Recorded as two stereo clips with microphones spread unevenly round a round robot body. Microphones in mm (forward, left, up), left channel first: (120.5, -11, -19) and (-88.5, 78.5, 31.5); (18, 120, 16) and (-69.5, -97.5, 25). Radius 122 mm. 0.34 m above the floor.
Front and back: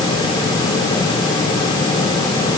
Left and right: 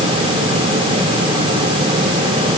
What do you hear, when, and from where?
Only background noise.